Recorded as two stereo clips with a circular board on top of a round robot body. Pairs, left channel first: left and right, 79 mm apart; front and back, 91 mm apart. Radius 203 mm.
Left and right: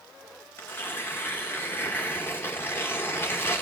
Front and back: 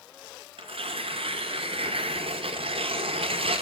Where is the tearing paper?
155° left, 0.5 m.